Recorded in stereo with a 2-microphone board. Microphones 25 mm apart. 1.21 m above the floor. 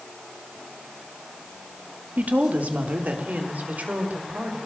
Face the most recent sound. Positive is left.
turn(degrees=-80)